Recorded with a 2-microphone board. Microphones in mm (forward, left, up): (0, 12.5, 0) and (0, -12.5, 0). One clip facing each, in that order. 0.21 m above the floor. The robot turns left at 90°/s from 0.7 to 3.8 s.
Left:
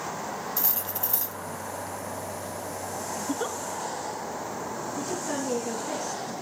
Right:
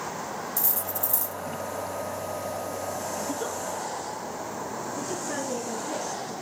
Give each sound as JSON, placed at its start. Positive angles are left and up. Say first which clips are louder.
{"t": 0.6, "sound": "cutlery clinking", "louder": "right 1 dB", "azimuth_deg": 115, "distance_m": 0.8}
{"t": 3.2, "sound": "a giggle", "louder": "even", "side_deg": 15, "distance_m": 0.7}
{"t": 5.0, "sound": "a woman speaking", "louder": "left 2 dB", "side_deg": 35, "distance_m": 3.5}